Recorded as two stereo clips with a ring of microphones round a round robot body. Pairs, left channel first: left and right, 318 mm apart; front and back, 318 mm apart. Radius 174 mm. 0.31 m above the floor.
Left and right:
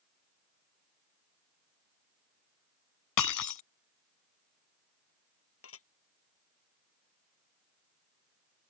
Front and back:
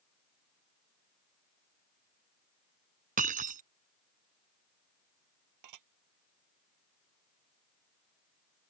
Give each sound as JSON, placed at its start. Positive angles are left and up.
{"t": 3.2, "sound": "breaking glass", "azimuth_deg": 110}
{"t": 5.6, "sound": "dishes clattering", "azimuth_deg": 135}